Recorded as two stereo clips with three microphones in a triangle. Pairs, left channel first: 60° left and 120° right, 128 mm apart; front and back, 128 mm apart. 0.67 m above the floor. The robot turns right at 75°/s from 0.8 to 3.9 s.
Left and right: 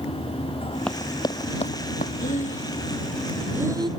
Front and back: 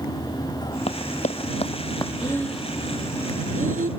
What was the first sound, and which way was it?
Running footsteps, 20° right.